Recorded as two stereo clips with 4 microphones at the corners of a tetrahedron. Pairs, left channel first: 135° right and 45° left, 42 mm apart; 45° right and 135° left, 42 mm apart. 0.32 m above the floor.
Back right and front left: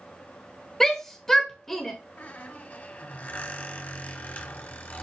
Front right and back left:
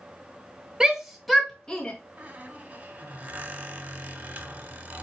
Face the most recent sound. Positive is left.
turn(degrees=-175)